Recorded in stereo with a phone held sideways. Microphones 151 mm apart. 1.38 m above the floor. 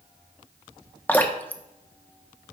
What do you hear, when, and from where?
1.1 s dripping: 10° left (ahead or behind), 0.9 m